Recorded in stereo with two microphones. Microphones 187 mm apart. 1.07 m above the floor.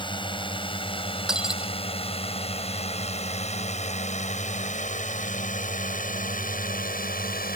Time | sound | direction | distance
0.0 | a drone | 25° left (ahead or behind) | ?
1.3 | breaking glass | 5° right (ahead or behind) | ?